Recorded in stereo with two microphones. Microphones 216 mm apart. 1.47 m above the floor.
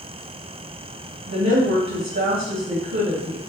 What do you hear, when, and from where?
1.3 s a woman speaking: 65° right (ahead or behind), 1.0 m